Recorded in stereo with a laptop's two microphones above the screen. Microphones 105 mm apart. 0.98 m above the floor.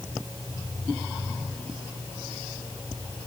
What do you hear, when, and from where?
Only background noise.